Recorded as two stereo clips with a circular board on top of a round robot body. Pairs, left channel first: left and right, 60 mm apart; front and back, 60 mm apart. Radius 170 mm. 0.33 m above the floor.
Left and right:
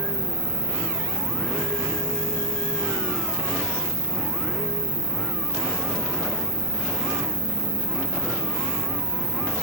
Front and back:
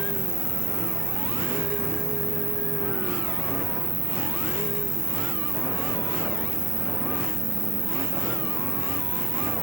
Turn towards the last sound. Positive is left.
turn(degrees=-170)